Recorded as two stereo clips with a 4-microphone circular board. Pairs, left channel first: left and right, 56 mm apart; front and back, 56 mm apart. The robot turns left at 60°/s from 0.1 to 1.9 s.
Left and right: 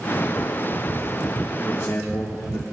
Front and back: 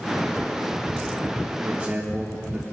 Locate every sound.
1.6 s a man speaking: 130° left, 1.0 m; by 2.6 s 115° left, 1.0 m